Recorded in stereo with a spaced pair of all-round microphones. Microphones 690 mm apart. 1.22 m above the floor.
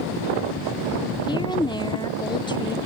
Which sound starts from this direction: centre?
A woman speaking, at 1.3 s.